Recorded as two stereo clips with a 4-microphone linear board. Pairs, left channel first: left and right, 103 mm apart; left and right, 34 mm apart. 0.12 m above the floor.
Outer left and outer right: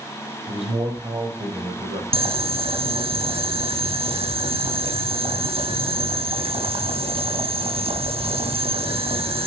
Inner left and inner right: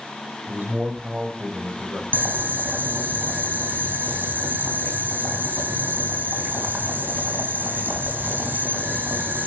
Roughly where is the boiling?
Right.